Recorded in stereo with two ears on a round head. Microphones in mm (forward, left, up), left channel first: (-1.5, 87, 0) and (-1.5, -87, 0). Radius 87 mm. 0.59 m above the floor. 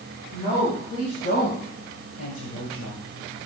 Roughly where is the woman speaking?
Left.